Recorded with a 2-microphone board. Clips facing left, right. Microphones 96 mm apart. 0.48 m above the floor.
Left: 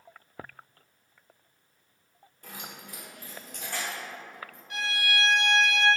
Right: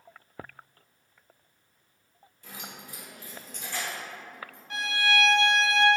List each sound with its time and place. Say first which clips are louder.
2.4 s keys jangling: even; 50° left (ahead or behind), 0.7 m; by 4.6 s 55° left (ahead or behind), 2.5 m
4.7 s a violin: right 4 dB; 40° right (ahead or behind), 0.6 m